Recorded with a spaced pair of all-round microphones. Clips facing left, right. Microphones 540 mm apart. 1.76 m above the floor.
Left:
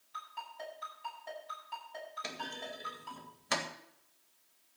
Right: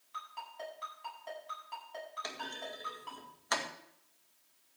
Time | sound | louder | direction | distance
0.1 | a ringtone | even | 25° right (ahead or behind) | 10 m
2.2 | a clunk | left 3 dB | 50° left (ahead or behind) | 1.9 m